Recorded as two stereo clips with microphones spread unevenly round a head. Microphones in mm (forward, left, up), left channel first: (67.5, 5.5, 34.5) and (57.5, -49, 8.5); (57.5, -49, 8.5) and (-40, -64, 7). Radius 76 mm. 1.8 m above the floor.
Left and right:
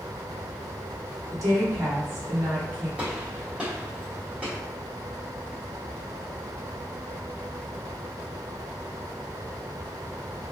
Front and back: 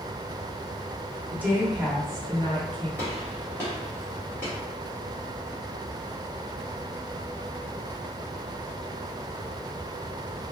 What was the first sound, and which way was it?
A woman speaking, 95° right.